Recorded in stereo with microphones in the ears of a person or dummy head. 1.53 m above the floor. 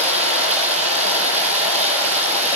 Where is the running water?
30° right (ahead or behind), 7.5 m.